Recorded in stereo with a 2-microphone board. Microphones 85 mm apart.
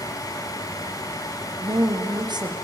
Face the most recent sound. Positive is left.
turn(degrees=-60)  # may be behind; listen again after turning